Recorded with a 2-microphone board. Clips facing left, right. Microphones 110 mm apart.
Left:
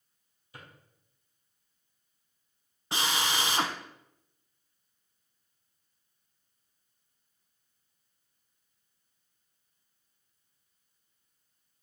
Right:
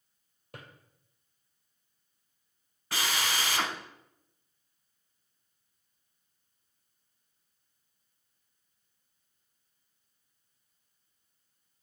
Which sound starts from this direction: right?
A drawer, at 0.5 s.